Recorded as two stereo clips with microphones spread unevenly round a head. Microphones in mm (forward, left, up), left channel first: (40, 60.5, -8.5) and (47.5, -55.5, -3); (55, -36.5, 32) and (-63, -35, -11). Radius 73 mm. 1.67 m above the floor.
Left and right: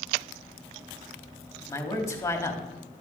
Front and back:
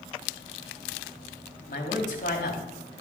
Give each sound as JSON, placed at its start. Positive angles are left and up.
{"t": 1.7, "sound": "a man speaking", "azimuth_deg": 30, "distance_m": 3.5}